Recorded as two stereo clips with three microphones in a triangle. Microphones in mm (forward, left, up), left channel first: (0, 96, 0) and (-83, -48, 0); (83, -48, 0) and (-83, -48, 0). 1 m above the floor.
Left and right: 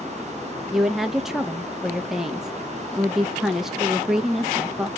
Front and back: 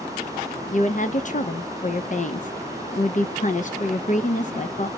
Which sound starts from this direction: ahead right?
A woman speaking, at 0.7 s.